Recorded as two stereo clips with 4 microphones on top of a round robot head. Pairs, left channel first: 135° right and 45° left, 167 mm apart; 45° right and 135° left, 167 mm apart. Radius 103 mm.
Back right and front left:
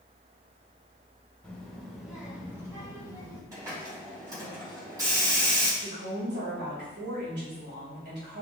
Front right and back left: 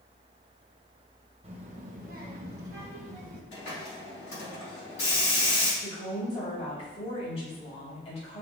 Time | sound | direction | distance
1.4 | a child speaking | 150° left | 1.0 m
3.5 | a hiss | 25° right | 3 m
5.8 | a woman speaking | 15° left | 3 m